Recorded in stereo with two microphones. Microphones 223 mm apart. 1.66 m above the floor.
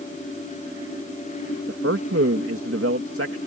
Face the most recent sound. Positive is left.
turn(degrees=-70)  # may be behind; listen again after turning